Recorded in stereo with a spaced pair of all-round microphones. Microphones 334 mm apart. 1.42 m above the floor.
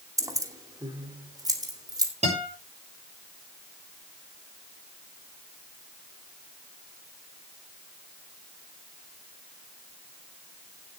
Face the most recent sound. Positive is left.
turn(degrees=-20)  # may be behind; listen again after turning